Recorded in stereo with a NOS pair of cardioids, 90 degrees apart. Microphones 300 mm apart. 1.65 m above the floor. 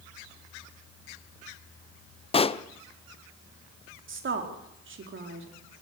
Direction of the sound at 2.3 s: 20° left.